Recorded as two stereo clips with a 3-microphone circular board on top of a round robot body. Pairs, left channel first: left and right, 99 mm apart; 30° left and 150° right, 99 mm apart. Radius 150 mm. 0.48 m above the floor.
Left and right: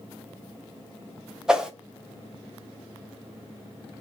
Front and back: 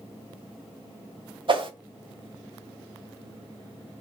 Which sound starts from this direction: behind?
A whoosh, at 1.5 s.